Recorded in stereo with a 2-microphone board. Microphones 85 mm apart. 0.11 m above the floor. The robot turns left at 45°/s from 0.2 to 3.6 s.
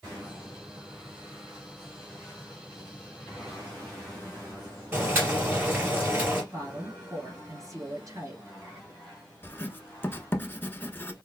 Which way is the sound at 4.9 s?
25° right (ahead or behind).